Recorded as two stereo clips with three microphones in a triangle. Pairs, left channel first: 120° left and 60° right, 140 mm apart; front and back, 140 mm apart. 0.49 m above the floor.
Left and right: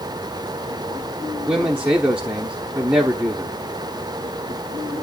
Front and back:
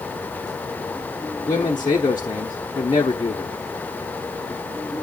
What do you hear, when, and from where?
1.5 s a man speaking: 15° left, 1.0 m